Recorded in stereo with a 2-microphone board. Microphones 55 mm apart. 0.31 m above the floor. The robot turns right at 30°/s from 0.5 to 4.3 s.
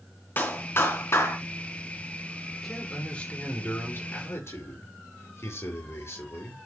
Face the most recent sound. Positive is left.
turn(degrees=55)